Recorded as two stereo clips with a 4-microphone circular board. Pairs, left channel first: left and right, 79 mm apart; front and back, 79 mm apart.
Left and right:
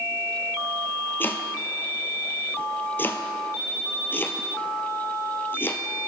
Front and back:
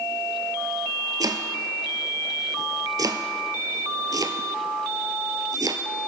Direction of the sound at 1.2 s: 150° left.